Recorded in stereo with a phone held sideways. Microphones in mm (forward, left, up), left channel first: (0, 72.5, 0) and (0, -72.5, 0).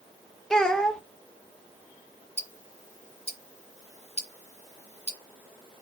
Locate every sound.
0.5 s a child speaking: 5° left (ahead or behind), 0.7 m
2.4 s ticking: 50° left (ahead or behind), 0.9 m